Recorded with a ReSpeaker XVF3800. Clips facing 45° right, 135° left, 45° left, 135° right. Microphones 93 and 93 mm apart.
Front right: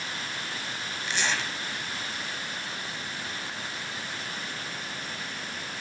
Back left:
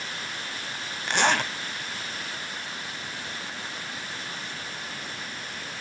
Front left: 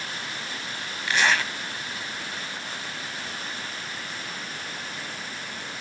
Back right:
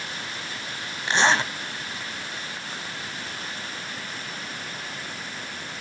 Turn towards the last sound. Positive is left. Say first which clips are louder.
# back left 7 dB, back right 3 dB
turn(degrees=165)